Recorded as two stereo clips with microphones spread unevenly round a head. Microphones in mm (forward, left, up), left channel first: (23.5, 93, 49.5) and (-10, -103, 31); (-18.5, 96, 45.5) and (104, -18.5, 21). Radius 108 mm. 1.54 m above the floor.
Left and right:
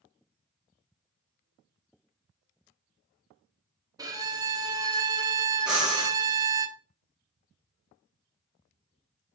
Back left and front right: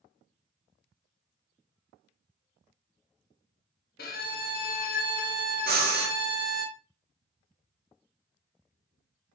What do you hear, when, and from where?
4.0 s a violin: 175° right, 0.8 m
5.7 s breathing: 10° right, 1.2 m